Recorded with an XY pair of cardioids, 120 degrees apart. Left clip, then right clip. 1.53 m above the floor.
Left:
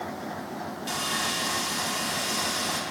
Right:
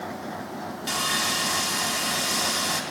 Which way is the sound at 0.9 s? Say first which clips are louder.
Right 4 dB; 35° right.